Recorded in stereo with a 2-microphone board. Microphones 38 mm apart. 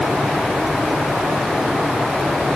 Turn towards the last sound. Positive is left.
No sound to turn to.